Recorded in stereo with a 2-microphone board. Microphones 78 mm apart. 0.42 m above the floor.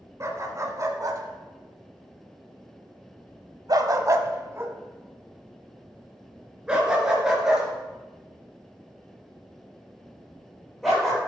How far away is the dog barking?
About 2 m.